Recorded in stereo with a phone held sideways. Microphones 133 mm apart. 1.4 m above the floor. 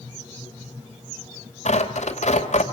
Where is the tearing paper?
60° left (ahead or behind), 2.5 m.